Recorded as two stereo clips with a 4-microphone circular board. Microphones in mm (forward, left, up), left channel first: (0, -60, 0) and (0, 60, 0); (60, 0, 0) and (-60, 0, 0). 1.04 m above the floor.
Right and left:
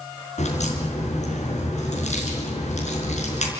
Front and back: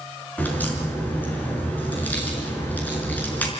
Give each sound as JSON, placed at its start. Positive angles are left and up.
{"t": 0.4, "sound": "a crack", "azimuth_deg": -75, "distance_m": 4.5}